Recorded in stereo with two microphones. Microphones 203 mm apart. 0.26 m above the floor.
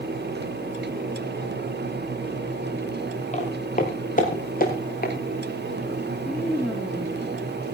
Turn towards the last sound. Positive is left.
turn(degrees=0)  # may be behind; listen again after turning